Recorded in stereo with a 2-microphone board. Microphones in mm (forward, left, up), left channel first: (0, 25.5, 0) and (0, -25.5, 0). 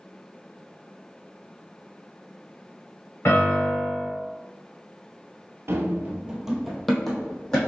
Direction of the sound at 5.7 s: 60° right (ahead or behind).